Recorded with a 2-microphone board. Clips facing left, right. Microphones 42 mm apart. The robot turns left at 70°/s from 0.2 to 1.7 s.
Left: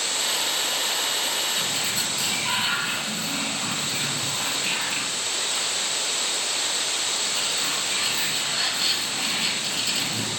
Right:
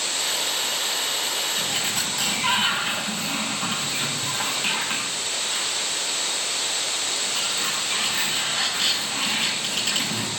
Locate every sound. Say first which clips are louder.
1.6 s a sliding door: right 1 dB; 45° right (ahead or behind), 8.5 m; by 10.3 s 55° right (ahead or behind), 8.5 m